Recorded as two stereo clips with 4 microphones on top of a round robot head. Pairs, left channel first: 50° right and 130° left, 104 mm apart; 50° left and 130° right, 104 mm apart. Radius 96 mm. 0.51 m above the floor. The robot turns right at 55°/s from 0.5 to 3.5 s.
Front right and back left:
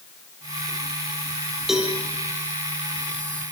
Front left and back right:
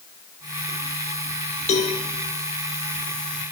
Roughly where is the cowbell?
Ahead left.